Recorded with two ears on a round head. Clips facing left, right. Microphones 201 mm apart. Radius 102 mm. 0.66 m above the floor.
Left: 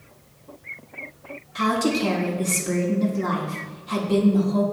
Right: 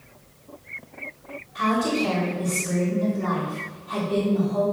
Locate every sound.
1.6 s a woman speaking: 55° left (ahead or behind), 1.5 m